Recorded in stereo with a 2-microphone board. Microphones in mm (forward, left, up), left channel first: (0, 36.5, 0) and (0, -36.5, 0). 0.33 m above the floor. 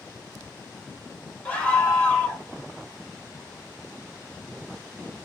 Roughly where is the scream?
Centre.